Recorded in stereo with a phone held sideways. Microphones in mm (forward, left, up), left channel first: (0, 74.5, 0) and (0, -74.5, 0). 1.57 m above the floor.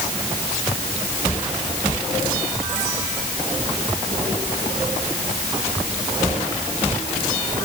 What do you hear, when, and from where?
Only background noise.